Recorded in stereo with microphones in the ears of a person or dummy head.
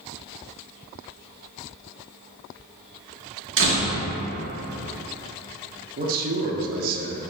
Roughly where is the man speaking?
Right.